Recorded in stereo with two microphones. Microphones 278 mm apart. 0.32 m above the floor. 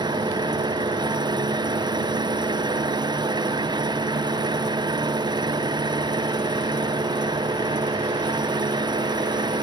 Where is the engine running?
15° right (ahead or behind).